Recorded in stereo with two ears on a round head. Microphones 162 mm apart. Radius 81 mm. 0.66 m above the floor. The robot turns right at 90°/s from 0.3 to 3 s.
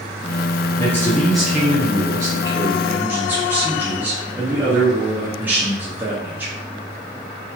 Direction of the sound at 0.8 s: 15° left (ahead or behind).